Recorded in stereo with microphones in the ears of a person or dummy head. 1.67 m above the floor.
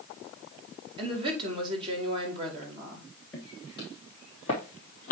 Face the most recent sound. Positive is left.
turn(degrees=45)  # may be behind; listen again after turning